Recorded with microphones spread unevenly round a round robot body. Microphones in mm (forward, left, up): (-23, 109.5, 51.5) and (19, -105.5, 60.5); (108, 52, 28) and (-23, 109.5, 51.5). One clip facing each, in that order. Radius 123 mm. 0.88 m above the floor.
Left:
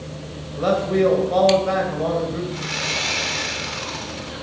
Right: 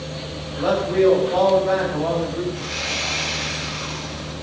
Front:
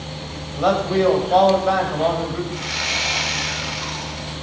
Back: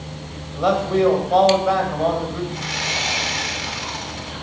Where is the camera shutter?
I don't hear a camera shutter.